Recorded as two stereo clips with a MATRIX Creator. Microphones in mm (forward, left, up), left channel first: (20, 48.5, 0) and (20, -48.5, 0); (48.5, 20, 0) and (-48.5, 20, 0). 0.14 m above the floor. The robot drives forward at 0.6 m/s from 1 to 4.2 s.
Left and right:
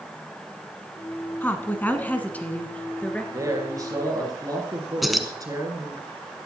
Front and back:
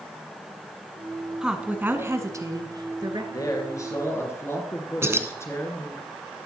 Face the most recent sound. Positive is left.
turn(degrees=180)